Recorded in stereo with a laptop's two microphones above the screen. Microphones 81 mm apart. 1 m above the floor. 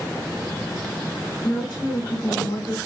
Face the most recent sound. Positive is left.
turn(degrees=50)  # may be behind; listen again after turning